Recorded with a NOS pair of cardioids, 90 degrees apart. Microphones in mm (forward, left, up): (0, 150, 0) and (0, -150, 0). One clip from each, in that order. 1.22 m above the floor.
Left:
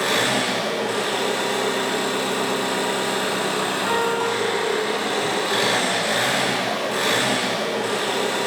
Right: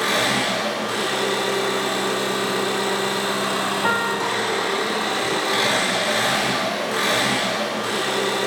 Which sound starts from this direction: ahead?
An engine running, at 0.0 s.